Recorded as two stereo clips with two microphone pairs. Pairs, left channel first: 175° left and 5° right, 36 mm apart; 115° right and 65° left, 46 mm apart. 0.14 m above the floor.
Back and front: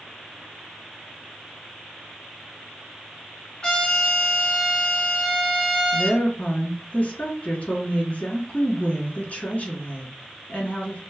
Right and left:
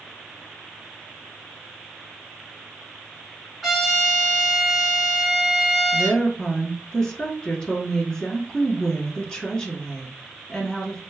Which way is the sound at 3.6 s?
160° left.